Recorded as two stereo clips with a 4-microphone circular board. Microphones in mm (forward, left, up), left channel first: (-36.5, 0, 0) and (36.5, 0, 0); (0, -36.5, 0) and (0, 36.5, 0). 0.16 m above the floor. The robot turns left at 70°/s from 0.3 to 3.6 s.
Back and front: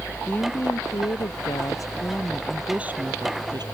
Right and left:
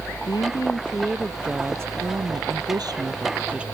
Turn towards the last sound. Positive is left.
turn(degrees=15)